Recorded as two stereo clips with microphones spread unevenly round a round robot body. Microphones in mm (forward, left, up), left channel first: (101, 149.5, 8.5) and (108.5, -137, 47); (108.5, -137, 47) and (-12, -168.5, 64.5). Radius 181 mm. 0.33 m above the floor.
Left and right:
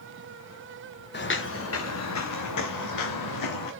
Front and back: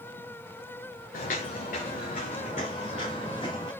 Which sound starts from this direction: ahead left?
Footsteps, at 1.1 s.